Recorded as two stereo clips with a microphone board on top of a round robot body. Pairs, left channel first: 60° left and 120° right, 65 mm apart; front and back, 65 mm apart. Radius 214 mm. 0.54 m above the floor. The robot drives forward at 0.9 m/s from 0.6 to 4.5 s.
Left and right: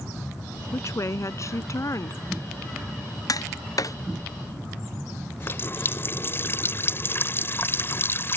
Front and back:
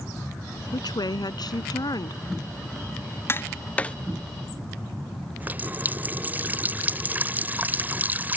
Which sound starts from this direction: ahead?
A woman speaking, at 0.7 s.